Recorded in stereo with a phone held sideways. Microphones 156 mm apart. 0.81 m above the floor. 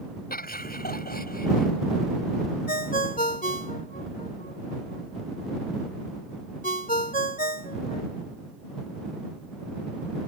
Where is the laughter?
80° left.